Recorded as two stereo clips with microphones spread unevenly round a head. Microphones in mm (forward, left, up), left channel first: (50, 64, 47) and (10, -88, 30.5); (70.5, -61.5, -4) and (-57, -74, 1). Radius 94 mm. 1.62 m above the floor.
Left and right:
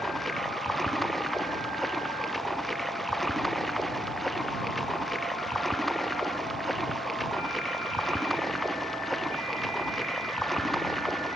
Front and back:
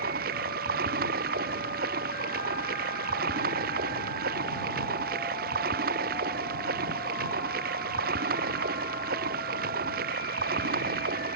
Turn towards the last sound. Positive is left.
turn(degrees=165)